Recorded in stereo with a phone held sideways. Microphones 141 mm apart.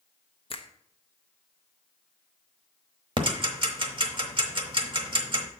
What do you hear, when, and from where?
0.5 s a finger snap: 45° left (ahead or behind), 0.6 m
3.2 s ticking: 40° right (ahead or behind), 1.0 m